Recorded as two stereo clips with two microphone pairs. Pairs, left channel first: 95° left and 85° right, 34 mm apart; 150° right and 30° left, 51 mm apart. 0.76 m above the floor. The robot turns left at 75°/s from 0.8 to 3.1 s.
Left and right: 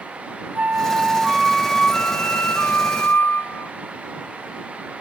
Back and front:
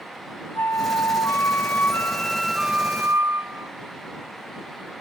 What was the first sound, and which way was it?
A flute, 120° right.